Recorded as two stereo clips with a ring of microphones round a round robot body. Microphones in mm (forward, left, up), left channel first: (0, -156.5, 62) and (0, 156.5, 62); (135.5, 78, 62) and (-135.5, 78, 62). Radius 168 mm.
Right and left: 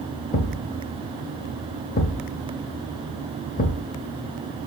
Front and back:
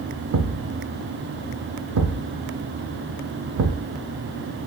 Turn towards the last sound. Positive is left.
turn(degrees=-150)